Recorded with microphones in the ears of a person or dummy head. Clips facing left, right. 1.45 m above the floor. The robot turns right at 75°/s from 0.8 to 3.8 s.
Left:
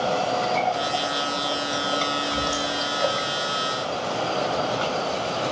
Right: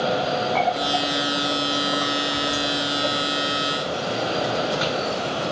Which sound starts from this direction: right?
A running tap, at 0.6 s.